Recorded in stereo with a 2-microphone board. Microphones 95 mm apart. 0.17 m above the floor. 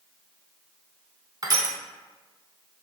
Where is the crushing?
40° right (ahead or behind), 0.5 m.